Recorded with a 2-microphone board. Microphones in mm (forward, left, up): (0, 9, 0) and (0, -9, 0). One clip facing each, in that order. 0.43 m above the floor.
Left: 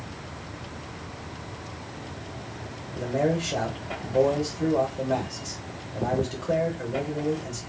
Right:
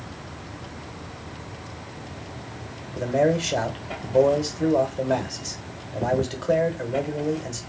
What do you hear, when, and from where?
3.0 s a man speaking: 40° right (ahead or behind), 1.0 m